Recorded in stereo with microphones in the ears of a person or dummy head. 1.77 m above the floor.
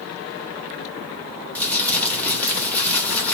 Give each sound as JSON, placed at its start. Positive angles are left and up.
{"t": 1.6, "sound": "crumpling", "side_deg": 10, "distance_m": 1.1}